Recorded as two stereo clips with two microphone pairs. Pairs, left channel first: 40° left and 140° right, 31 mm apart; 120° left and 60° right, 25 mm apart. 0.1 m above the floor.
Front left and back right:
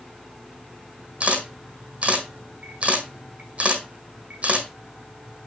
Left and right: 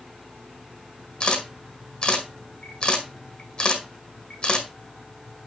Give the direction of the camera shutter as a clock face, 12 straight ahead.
6 o'clock.